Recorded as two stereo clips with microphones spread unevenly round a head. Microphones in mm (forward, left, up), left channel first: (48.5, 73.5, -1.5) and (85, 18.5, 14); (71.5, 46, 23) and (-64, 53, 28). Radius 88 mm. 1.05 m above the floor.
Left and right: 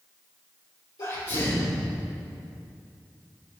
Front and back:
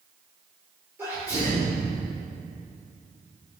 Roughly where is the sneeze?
Left.